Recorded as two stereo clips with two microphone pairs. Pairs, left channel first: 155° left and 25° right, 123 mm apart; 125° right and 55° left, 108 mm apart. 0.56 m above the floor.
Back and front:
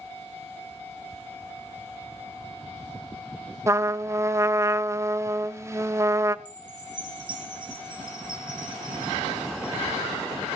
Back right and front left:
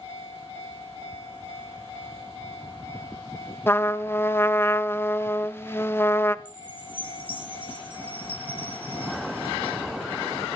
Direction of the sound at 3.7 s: 75° right.